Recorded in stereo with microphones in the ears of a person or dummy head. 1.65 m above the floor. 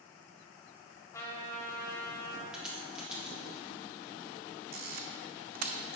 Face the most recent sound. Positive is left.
turn(degrees=-55)  # may be behind; listen again after turning